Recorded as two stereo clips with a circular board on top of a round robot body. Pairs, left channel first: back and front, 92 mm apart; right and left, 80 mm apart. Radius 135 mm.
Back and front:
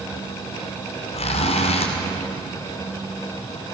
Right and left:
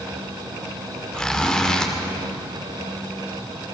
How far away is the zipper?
About 2.5 m.